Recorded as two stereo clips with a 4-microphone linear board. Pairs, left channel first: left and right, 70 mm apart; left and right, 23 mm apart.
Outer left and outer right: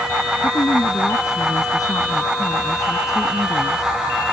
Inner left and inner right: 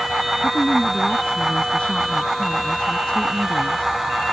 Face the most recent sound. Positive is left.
turn(degrees=55)  # may be behind; listen again after turning